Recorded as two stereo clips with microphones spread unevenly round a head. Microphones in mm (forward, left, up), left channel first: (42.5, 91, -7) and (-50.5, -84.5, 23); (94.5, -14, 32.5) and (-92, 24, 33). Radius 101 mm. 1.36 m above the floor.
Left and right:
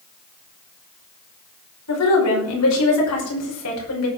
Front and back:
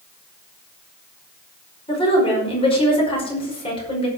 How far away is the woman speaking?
About 5 m.